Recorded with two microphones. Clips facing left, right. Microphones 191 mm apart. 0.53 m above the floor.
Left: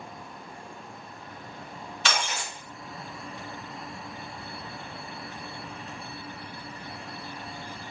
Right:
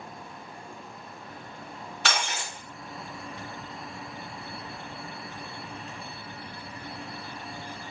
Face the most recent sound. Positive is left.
turn(degrees=-70)  # may be behind; listen again after turning